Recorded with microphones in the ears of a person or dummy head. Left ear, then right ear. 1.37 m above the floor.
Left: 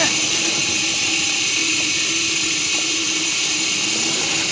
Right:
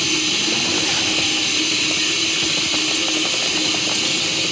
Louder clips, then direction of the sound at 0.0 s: Even; 40° left (ahead or behind).